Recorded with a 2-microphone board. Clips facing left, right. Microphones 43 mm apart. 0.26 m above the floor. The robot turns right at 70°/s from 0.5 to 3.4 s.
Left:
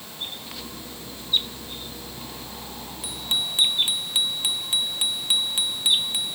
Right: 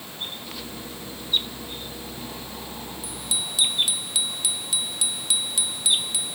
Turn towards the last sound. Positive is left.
turn(degrees=30)  # may be behind; listen again after turning